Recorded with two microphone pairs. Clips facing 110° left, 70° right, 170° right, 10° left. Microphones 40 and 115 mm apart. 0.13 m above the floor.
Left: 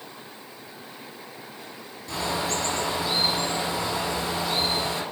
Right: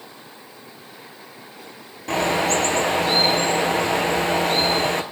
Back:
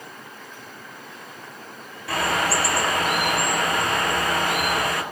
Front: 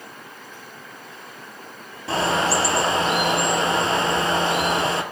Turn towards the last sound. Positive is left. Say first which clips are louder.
# right 8 dB, front 2 dB
turn(degrees=-55)